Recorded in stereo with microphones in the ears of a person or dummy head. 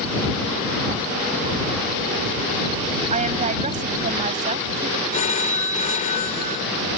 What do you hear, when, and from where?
3.1 s a woman speaking: 35° right (ahead or behind)
5.1 s a phone ringing: 40° left (ahead or behind)